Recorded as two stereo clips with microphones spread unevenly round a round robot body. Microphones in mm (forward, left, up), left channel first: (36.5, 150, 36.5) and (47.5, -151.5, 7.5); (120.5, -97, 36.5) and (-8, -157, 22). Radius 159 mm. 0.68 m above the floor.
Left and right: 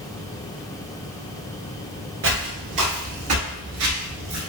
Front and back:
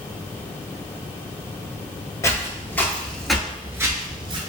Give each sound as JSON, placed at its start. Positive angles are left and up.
{"t": 2.2, "sound": "footsteps", "azimuth_deg": -40, "distance_m": 1.3}